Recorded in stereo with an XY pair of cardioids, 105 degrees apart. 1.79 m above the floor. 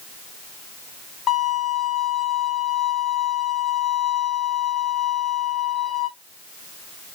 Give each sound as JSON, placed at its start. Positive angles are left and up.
{"t": 1.3, "sound": "a violin", "azimuth_deg": 65, "distance_m": 2.5}